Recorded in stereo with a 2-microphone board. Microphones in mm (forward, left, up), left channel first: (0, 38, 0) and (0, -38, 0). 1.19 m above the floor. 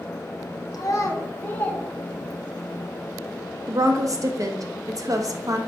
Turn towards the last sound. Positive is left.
turn(degrees=-45)  # may be behind; listen again after turning